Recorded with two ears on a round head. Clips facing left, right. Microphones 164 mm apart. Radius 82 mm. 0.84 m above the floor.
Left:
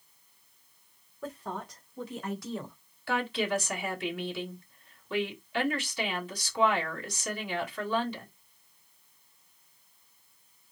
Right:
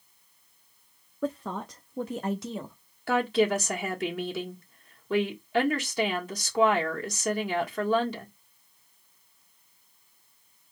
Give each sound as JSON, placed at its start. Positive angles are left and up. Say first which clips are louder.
{"t": 1.2, "sound": "a woman speaking", "louder": "right 6 dB", "side_deg": -65, "distance_m": 1.1}
{"t": 3.1, "sound": "a woman speaking", "louder": "right 6 dB", "side_deg": -40, "distance_m": 1.8}